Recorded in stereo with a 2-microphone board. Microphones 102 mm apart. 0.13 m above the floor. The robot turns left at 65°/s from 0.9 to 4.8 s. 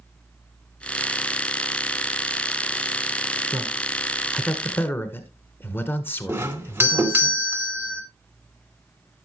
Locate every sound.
3.5 s a man speaking: 135° right, 1.6 m; by 7.3 s 140° left, 1.6 m
6.3 s a doorbell: 20° right (ahead or behind), 1.8 m